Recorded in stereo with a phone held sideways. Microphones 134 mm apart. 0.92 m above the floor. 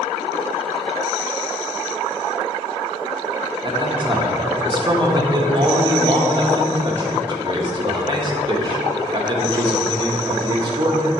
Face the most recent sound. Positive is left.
turn(degrees=-35)  # may be behind; listen again after turning